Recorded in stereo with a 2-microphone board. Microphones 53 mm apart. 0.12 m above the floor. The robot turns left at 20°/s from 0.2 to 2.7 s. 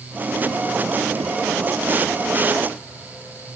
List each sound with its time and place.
Only background noise.